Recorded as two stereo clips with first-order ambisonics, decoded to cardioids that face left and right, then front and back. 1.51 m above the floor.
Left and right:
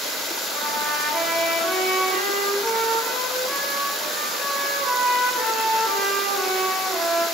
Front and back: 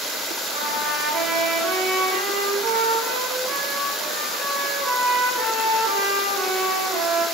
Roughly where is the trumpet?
Behind.